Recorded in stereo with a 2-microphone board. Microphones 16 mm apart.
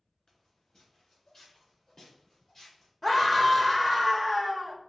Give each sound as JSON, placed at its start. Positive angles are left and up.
{"t": 0.3, "sound": "footsteps", "side_deg": 55, "distance_m": 1.6}
{"t": 3.0, "sound": "a scream", "side_deg": 10, "distance_m": 0.8}